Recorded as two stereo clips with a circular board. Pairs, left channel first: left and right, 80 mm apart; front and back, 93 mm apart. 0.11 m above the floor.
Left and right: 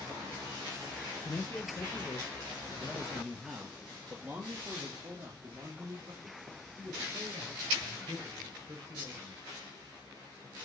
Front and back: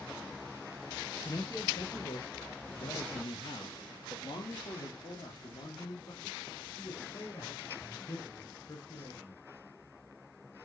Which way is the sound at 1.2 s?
50° left.